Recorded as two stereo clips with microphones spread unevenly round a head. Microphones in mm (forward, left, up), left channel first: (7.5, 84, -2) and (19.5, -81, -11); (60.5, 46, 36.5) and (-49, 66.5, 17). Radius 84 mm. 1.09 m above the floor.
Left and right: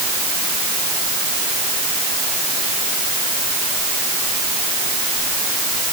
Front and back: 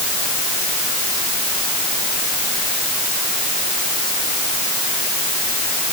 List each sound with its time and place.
Only background noise.